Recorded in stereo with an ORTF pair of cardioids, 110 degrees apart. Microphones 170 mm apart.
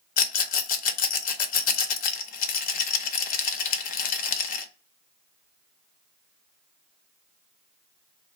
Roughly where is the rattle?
Ahead left.